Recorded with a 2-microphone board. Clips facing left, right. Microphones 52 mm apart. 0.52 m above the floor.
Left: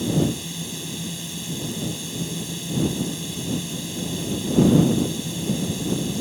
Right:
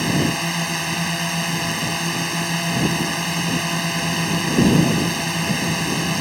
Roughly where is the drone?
Right.